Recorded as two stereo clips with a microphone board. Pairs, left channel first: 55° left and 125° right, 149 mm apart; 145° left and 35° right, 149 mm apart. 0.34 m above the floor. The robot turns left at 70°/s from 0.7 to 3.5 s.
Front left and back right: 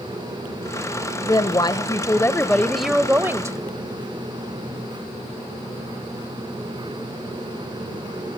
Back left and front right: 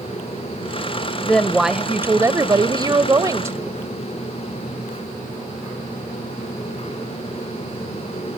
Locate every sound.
1.2 s a woman speaking: 80° left, 0.9 m; by 3.8 s 80° right, 0.9 m